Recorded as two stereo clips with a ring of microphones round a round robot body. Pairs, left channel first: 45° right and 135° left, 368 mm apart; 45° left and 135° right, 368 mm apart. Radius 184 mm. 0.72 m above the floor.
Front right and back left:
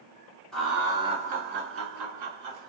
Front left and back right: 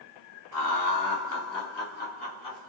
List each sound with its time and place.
0.5 s laughter: 45° left, 1.2 m; by 2.7 s 125° left, 1.2 m